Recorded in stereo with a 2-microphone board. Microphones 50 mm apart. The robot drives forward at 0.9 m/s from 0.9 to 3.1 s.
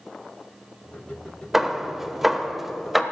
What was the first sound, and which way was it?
Hammering, 5° right (ahead or behind).